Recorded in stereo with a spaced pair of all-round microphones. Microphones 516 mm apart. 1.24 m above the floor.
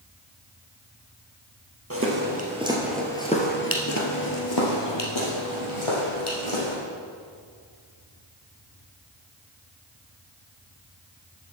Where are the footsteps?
25° right (ahead or behind), 2.0 m; by 6.8 s 70° left (ahead or behind), 3.5 m.